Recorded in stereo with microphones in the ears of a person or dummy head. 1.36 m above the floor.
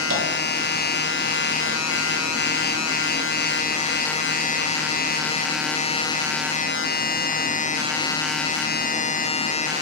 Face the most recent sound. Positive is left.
turn(degrees=-65)  # may be behind; listen again after turning